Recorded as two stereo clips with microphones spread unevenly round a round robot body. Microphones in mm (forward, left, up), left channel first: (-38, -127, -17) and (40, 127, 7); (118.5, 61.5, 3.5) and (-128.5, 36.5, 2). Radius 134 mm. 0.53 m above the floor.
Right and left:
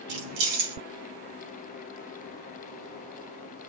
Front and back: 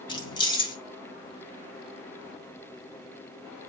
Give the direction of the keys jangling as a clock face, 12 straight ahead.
9 o'clock.